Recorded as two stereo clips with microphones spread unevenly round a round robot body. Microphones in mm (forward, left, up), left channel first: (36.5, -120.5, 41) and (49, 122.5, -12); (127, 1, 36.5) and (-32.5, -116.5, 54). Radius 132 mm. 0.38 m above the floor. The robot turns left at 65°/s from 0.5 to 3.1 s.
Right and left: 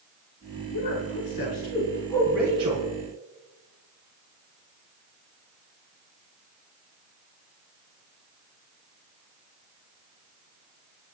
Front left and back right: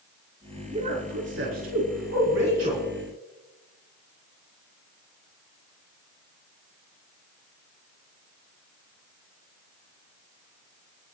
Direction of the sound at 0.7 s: 80° right.